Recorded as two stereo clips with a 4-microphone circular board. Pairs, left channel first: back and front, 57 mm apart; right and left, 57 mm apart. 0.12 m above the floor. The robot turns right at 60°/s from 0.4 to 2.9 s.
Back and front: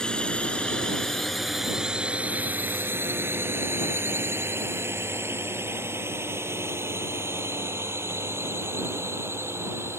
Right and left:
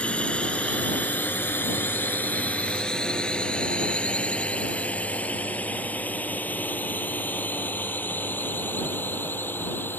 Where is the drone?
125° right; by 10.0 s 40° right.